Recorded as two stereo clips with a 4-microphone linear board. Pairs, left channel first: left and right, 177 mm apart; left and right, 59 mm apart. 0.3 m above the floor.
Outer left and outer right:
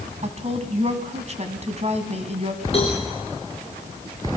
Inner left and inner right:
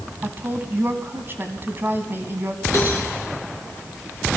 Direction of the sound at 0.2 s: 40° right (ahead or behind).